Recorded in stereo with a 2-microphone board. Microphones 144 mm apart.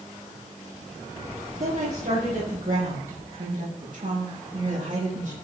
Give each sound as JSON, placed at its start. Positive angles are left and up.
{"t": 1.6, "sound": "a woman speaking", "side_deg": -75, "distance_m": 7.0}